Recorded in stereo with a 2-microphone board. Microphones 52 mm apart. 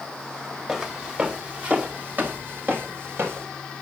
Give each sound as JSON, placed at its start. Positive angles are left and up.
{"t": 0.7, "sound": "footsteps", "side_deg": -15, "distance_m": 2.5}